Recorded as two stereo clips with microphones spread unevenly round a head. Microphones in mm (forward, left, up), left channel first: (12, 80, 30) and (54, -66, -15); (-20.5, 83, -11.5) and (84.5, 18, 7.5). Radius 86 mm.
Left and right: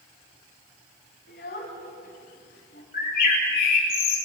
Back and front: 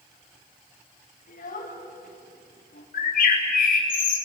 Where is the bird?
150° left, 6.5 m.